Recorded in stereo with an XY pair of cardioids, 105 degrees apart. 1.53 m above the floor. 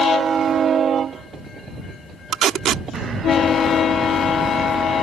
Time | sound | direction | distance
2.3 | tape being pulled | 70° right | ?